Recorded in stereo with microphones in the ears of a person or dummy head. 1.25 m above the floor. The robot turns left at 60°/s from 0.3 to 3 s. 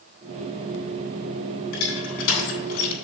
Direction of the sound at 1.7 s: 75° left (ahead or behind).